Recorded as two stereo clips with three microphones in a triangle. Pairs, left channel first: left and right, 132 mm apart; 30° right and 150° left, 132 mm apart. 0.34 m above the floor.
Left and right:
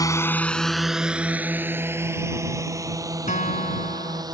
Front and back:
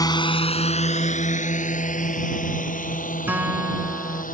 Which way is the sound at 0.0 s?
30° left.